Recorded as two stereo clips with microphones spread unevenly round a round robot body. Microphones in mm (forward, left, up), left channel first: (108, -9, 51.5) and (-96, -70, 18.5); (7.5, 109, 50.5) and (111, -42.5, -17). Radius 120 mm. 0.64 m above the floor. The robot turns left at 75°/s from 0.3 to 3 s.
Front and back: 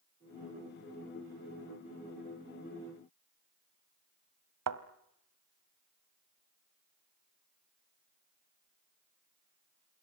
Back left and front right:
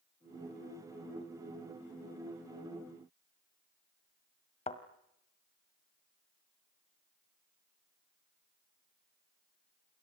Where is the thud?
170° right, 1.5 m.